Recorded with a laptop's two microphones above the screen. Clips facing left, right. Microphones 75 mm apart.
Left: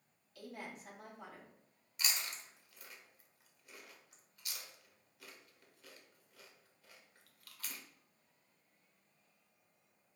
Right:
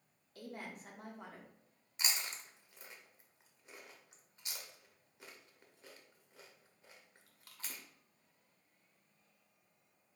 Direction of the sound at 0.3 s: 40° right (ahead or behind).